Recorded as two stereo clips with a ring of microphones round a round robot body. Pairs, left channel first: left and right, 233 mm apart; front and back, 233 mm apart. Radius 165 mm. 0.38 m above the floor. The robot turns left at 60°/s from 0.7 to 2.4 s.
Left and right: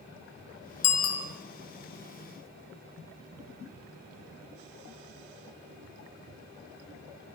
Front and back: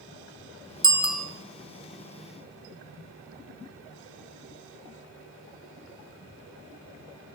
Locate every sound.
0.8 s a bicycle bell: 110° left, 3.5 m; by 1.2 s 85° left, 3.5 m